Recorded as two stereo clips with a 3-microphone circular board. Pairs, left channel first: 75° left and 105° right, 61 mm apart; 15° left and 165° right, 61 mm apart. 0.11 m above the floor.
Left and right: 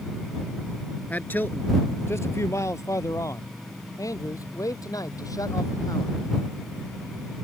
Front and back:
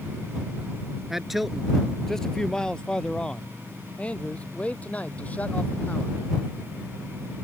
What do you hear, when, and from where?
1.1 s a man speaking: 115° left; by 6.1 s 80° left